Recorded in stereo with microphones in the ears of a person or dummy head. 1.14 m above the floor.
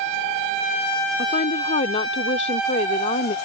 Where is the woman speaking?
35° left (ahead or behind).